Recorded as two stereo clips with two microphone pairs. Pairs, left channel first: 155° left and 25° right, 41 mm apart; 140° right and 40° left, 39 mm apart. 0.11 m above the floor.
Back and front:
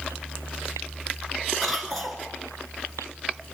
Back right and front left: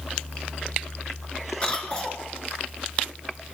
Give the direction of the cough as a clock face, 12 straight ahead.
4 o'clock.